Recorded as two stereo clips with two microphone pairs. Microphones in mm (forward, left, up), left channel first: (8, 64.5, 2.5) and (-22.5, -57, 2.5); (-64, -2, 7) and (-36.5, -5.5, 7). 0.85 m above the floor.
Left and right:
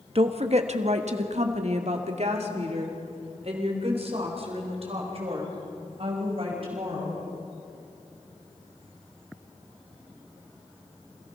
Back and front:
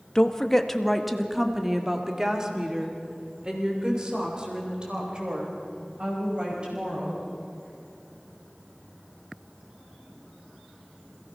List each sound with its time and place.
0.1 s a woman speaking: 125° right, 1.2 m; by 7.2 s 65° right, 6 m